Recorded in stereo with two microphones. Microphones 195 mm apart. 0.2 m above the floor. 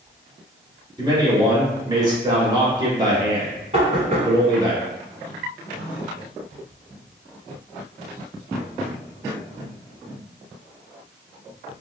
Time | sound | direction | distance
1.0 | a man speaking | 20° right (ahead or behind) | 1.2 m
3.7 | knocking | 35° right (ahead or behind) | 1.6 m